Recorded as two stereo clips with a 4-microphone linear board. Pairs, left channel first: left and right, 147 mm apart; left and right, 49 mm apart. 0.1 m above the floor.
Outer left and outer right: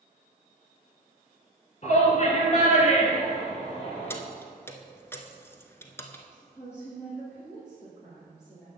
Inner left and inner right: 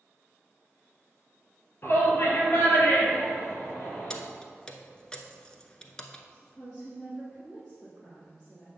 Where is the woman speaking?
15° left (ahead or behind), 2.5 m.